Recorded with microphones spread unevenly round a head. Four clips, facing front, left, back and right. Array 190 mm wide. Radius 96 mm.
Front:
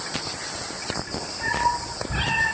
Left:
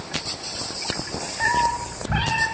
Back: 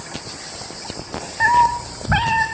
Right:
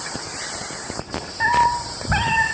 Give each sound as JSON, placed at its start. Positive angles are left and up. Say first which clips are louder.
{"t": 1.4, "sound": "a cat meowing", "louder": "right 4 dB, back 9 dB", "azimuth_deg": -175, "distance_m": 5.5}